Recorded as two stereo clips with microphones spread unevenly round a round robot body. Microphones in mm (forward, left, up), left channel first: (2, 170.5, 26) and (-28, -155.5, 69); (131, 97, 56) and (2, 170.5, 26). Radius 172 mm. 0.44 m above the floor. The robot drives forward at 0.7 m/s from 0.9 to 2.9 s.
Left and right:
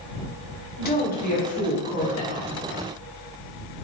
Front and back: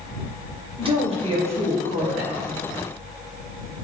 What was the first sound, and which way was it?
A woman speaking, 130° left.